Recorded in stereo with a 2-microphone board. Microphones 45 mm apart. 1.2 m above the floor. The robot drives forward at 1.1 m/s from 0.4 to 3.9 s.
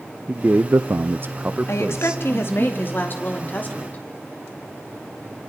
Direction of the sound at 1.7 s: 80° left.